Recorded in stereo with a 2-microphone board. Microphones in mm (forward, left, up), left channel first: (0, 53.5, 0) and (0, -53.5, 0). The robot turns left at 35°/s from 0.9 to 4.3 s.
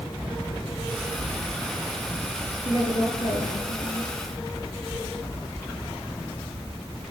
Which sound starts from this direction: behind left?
A woman speaking, at 2.6 s.